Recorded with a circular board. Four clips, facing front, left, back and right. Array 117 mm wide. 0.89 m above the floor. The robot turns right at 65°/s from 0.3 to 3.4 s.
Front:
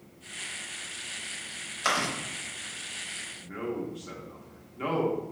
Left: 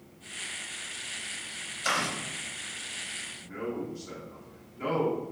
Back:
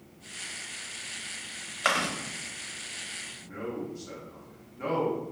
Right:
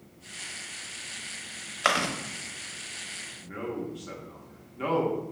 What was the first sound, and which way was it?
Chewing, 110° right.